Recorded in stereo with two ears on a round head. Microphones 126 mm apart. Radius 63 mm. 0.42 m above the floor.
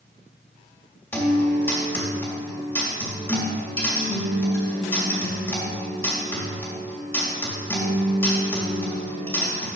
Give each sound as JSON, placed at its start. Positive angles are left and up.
{"t": 1.1, "sound": "a guitar", "side_deg": 15, "distance_m": 1.9}